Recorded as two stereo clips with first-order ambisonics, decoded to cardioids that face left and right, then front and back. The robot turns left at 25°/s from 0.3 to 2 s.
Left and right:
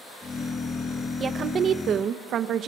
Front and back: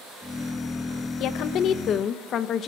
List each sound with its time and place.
1.2 s a woman speaking: 25° right, 0.9 m; by 2.7 s 45° right, 0.9 m